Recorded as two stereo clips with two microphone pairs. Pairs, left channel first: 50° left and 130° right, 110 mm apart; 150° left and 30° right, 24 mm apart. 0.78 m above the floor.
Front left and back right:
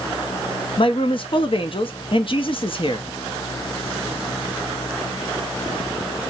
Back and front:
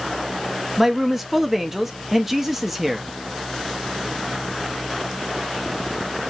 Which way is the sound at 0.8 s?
45° left.